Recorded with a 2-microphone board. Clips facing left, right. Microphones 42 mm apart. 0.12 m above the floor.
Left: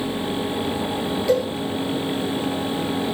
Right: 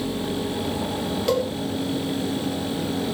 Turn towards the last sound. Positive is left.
turn(degrees=-70)  # may be behind; listen again after turning